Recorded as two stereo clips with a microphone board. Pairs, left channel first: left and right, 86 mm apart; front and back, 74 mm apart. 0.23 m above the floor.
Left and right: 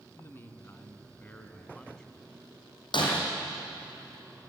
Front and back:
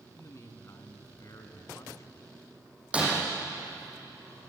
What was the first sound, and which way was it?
A man speaking, 35° left.